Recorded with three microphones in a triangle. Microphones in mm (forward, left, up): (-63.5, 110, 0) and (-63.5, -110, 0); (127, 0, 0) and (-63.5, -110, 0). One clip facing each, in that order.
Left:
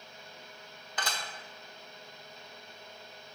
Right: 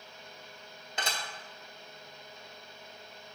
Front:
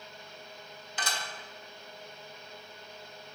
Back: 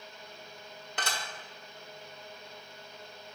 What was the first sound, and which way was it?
Dishes clattering, 155° right.